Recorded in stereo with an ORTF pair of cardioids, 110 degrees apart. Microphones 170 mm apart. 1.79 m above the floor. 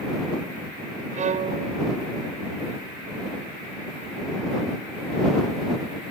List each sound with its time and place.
1.1 s a violin: 45° right